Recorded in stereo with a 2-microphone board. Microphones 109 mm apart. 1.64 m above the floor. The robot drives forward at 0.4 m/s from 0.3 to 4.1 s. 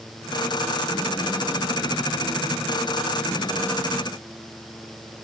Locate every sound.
Only background noise.